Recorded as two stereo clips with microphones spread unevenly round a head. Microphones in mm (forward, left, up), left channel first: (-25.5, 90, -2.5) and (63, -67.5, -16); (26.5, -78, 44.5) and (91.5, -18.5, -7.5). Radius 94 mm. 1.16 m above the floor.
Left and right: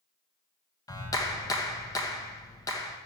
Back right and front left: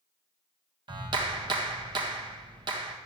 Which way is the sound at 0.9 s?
45° left.